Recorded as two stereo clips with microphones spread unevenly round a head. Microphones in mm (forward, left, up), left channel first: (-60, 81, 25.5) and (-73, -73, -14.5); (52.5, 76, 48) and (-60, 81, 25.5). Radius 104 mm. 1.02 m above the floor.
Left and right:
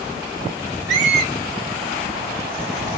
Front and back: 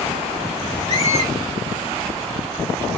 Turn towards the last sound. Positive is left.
turn(degrees=-85)